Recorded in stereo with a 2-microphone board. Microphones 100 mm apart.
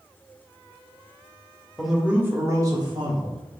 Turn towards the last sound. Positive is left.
turn(degrees=-55)  # may be behind; listen again after turning